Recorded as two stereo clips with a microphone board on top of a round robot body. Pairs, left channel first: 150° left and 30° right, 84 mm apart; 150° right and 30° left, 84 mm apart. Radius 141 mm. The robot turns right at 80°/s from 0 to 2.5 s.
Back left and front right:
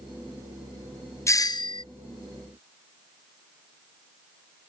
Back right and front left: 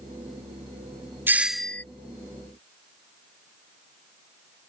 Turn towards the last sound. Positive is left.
turn(degrees=-165)